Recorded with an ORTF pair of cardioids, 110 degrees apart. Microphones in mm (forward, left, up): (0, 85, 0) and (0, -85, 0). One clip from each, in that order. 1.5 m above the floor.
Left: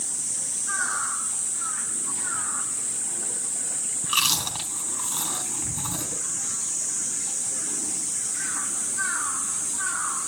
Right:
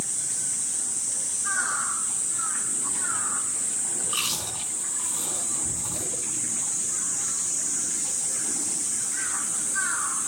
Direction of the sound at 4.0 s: 55° left.